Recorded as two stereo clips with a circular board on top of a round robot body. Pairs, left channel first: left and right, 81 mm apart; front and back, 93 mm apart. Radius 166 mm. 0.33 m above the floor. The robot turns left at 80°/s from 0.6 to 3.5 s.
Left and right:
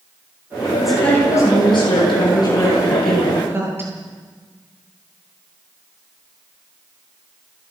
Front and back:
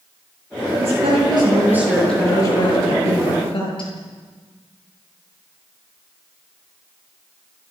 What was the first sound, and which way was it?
A woman speaking, 175° right.